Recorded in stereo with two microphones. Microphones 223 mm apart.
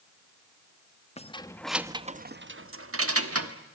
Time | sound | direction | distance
1.2 | keys jangling | 25° left (ahead or behind) | 0.9 m